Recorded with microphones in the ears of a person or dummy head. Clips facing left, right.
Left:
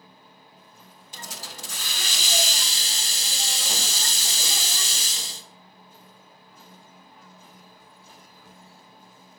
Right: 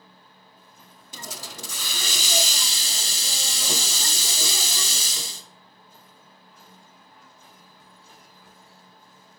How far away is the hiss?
About 0.5 m.